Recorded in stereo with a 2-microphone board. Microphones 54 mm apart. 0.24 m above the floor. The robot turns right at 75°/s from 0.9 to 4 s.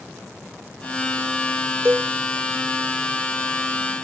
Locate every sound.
1.9 s a cowbell: 45° right (ahead or behind); by 2.1 s 25° right (ahead or behind)